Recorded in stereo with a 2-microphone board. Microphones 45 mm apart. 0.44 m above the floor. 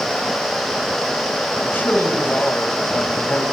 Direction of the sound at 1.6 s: 50° left (ahead or behind).